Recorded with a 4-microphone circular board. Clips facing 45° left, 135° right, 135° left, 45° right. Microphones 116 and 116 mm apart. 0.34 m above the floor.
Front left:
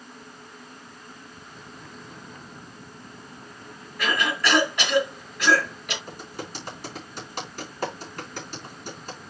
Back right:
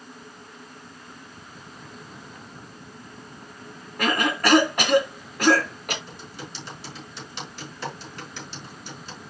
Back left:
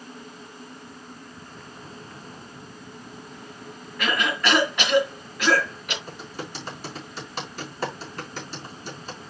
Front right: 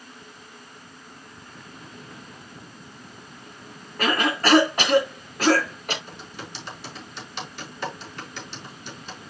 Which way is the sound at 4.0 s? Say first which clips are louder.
Back right 3 dB, front right 3 dB; 95° right.